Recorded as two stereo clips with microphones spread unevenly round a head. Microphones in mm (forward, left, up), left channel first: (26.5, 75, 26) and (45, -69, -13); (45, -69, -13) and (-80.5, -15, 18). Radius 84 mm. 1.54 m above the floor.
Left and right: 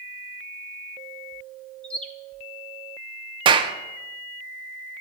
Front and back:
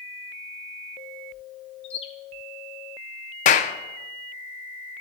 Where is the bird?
35° left, 0.7 m.